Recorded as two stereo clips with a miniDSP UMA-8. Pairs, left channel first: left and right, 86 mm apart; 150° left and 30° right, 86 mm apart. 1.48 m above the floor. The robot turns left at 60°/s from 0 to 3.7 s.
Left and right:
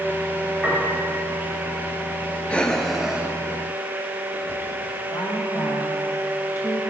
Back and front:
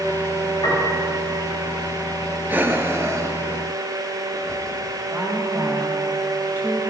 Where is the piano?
Straight behind, 4 m; by 1.0 s 160° left, 4 m.